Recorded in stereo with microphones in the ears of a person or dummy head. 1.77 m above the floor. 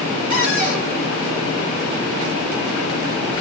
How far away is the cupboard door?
About 1.9 m.